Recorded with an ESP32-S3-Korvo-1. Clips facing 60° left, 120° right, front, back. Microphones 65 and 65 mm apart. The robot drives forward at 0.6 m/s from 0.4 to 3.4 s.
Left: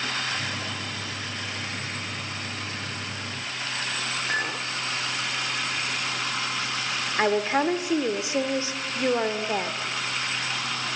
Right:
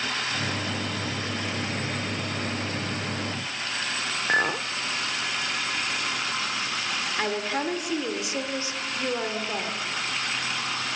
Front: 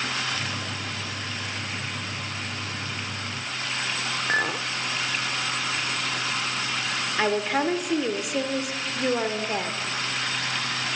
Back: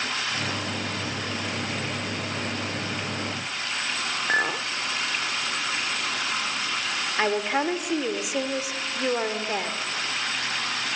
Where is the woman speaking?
95° left, 1.2 m.